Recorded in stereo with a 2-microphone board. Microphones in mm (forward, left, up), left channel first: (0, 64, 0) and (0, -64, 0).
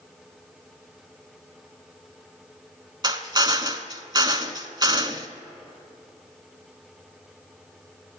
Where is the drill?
35° right (ahead or behind), 0.8 m.